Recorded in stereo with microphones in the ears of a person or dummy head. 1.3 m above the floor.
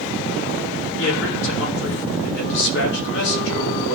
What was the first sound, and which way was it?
A man speaking, 70° left (ahead or behind).